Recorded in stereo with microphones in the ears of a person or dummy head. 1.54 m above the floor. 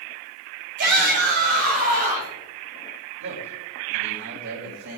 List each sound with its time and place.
0.8 s a shout: 50° right (ahead or behind), 6.5 m; by 2.4 s 40° right (ahead or behind), 7.5 m
3.2 s a man speaking: 65° right (ahead or behind), 5.5 m